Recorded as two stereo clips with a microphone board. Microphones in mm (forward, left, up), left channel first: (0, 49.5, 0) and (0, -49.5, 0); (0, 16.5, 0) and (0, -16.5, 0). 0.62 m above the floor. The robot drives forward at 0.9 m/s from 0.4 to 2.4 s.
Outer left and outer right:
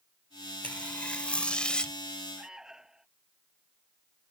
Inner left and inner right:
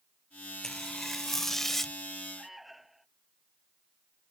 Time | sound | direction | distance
0.6 | tearing paper | 15° left (ahead or behind) | ?
2.4 | an alarm | 5° right (ahead or behind) | ?